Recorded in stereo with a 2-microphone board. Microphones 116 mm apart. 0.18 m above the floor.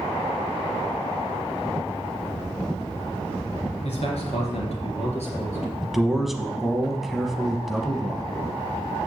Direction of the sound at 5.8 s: Centre (ahead or behind).